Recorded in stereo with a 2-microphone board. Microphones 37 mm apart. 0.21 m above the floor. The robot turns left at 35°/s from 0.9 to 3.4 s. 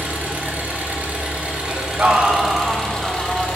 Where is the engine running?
130° right, 1.4 m; by 3.6 s 145° left, 1.4 m.